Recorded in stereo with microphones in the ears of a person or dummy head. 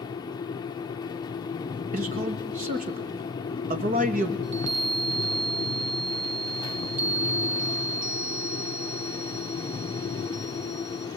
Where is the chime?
40° right (ahead or behind), 1.1 m.